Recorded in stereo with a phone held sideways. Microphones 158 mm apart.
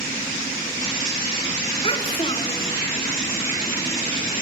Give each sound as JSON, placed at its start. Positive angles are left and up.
{"t": 1.8, "sound": "a child speaking", "side_deg": 35, "distance_m": 3.0}